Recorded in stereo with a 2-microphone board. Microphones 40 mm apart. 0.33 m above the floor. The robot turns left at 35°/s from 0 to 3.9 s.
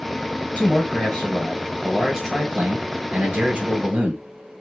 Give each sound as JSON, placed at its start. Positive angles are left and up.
{"t": 0.6, "sound": "a man speaking", "azimuth_deg": 30, "distance_m": 1.4}